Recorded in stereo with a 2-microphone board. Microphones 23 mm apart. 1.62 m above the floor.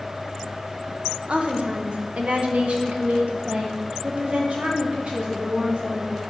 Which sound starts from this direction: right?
A woman speaking, at 1.3 s.